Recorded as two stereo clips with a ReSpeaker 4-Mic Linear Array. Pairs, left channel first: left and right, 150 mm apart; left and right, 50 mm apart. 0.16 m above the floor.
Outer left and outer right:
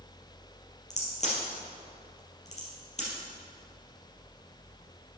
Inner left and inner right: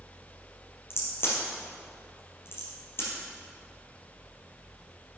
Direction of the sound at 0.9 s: 50° left (ahead or behind).